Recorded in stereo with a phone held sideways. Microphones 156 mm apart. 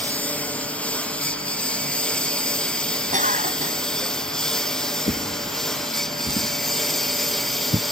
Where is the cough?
60° right (ahead or behind).